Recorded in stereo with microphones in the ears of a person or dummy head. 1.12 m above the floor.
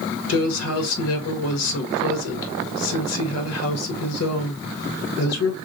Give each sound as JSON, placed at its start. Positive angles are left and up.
{"t": 0.3, "sound": "a woman speaking", "side_deg": 75, "distance_m": 1.5}